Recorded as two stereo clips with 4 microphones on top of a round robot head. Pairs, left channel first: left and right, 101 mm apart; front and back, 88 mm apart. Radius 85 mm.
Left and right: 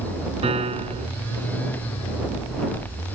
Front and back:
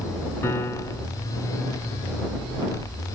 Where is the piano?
70° right.